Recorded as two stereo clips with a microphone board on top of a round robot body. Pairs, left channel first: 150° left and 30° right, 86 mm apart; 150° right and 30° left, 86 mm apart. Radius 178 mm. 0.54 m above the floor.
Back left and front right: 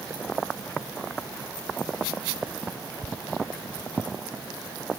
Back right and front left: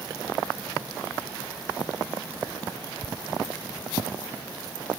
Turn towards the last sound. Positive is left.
No sound to turn to.